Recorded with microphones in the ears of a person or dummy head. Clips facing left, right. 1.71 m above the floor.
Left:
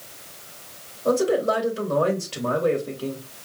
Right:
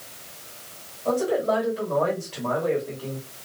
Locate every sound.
1.1 s a man speaking: 65° left (ahead or behind), 2.5 m